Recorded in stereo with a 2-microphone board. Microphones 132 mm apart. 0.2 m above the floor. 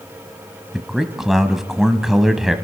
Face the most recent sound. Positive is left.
turn(degrees=-5)  # may be behind; listen again after turning